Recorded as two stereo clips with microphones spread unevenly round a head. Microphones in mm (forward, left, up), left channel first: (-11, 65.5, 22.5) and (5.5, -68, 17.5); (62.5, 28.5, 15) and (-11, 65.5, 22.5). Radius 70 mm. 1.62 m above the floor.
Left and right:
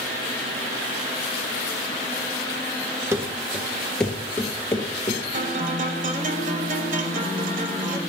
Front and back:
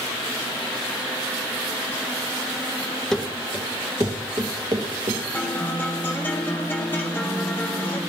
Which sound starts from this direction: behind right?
Running footsteps, at 3.1 s.